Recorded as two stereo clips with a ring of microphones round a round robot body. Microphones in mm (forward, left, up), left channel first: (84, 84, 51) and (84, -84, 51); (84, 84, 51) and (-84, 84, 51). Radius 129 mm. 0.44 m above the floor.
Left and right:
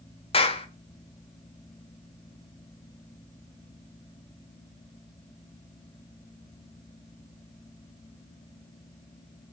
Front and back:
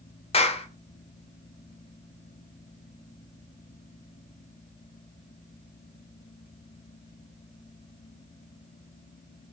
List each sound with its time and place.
0.3 s a clap: 45° left, 1.6 m